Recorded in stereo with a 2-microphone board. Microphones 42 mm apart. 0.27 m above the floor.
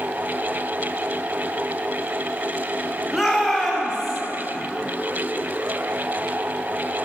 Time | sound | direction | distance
3.1 | a shout | 5° right (ahead or behind) | 1.6 m